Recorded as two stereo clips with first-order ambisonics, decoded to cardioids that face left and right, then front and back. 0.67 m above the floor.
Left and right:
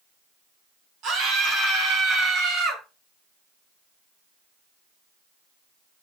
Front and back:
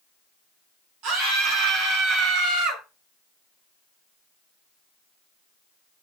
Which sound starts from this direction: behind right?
A scream, at 1.0 s.